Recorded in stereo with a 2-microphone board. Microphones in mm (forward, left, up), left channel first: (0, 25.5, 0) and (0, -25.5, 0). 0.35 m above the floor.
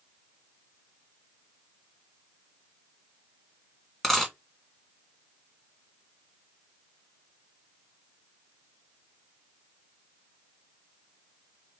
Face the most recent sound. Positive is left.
turn(degrees=0)  # may be behind; listen again after turning